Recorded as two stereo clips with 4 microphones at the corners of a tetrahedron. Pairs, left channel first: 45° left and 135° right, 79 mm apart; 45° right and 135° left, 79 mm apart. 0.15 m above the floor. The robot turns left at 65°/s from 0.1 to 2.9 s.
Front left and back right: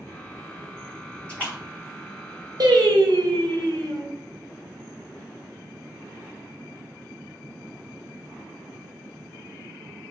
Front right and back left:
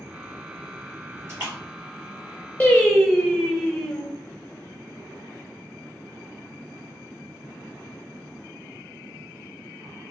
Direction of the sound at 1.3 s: 105° left.